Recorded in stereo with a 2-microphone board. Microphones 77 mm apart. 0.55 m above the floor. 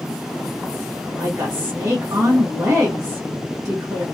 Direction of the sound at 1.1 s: 40° right (ahead or behind).